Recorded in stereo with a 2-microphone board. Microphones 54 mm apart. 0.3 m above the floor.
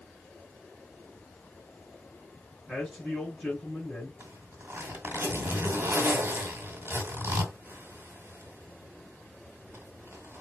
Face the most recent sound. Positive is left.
turn(degrees=-45)  # may be behind; listen again after turning